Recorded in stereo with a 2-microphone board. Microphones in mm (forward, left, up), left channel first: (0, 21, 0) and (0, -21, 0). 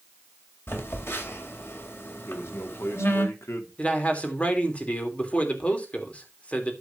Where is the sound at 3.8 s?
30° left (ahead or behind), 3 m.